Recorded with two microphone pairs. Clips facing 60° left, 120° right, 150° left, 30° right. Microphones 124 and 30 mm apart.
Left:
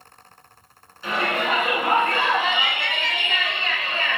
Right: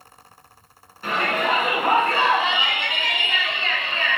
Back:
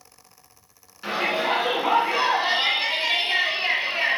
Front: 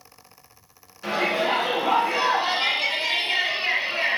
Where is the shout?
140° right, 1.7 m; by 4.2 s 115° left, 1.1 m.